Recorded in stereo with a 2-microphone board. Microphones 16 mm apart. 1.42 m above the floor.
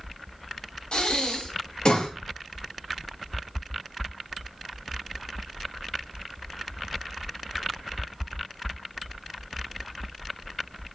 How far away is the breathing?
About 4.5 m.